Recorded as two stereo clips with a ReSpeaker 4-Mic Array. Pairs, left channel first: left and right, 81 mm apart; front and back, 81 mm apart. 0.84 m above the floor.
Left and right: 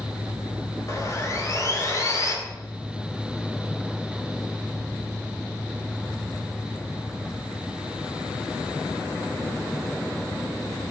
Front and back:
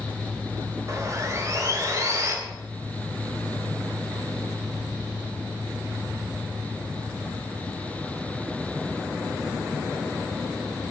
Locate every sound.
0.9 s sawing: 135° left, 2.5 m